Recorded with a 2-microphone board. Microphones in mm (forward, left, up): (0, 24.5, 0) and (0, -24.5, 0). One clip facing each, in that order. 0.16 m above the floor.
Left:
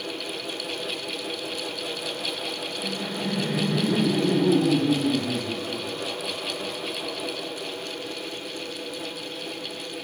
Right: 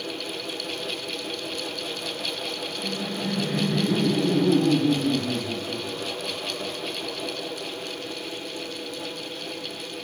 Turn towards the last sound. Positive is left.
turn(degrees=40)  # may be behind; listen again after turning